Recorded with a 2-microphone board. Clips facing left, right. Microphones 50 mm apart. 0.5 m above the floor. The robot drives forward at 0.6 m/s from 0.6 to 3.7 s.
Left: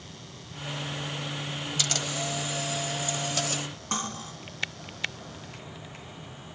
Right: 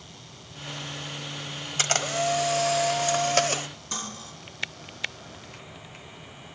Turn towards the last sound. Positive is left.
turn(degrees=45)  # may be behind; listen again after turning